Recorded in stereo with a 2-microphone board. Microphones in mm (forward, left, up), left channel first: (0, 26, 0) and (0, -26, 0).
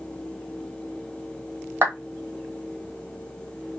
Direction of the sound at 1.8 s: 45° right (ahead or behind).